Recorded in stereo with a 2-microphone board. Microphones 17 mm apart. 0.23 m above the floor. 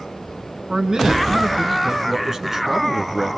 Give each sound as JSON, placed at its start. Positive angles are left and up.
{"t": 0.7, "sound": "a man speaking", "side_deg": -55, "distance_m": 2.5}